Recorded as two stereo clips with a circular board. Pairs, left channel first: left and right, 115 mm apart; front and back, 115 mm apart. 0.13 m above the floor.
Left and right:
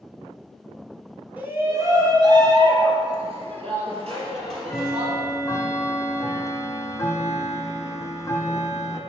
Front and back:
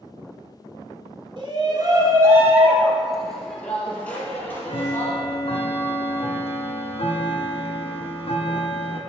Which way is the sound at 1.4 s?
160° right.